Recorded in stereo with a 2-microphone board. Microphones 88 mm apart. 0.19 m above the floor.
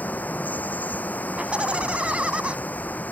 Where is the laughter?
15° right (ahead or behind).